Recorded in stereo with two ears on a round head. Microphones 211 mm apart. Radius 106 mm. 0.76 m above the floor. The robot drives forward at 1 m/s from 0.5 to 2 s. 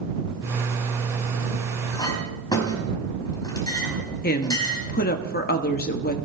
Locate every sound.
1.9 s a clink: 15° left (ahead or behind), 4.5 m
4.2 s a woman speaking: 40° left (ahead or behind), 1.3 m